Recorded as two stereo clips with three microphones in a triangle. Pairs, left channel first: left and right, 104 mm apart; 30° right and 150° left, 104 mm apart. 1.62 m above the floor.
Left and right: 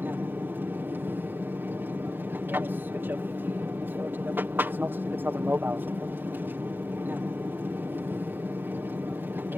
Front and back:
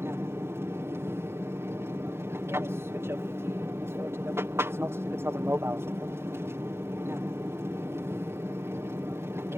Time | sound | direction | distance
0.0 | an aircraft | 155° right | ?